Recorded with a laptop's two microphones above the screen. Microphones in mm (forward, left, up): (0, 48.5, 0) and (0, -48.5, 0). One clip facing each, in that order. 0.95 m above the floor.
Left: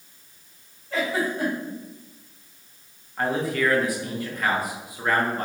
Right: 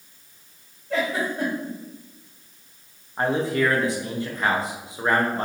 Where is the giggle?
80° right, 1.8 m.